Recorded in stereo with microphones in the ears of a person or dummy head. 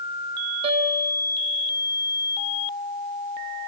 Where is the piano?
30° right (ahead or behind), 1.4 m.